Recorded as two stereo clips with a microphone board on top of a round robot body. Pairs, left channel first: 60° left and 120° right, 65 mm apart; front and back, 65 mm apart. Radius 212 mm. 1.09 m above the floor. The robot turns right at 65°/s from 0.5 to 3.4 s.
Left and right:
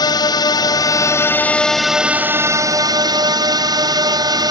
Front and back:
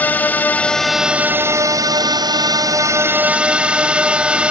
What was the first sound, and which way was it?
A drone, 65° left.